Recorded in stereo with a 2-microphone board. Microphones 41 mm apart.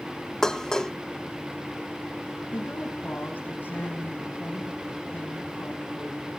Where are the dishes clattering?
15° left (ahead or behind), 0.6 m.